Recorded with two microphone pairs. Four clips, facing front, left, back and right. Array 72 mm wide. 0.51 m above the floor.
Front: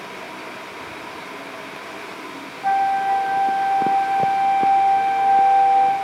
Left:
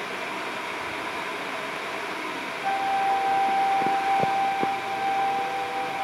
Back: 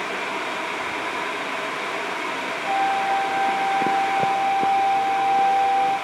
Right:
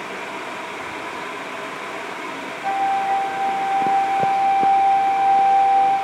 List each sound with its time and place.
2.6 s a flute: 15° right, 7.5 m